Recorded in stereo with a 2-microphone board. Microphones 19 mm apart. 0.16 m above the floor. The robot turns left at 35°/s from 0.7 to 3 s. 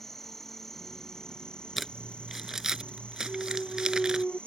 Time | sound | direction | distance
0.0 | an insect | 165° left | ?
1.8 | crumpling | 5° right (ahead or behind) | ?
3.2 | a clunk | 55° left (ahead or behind) | ?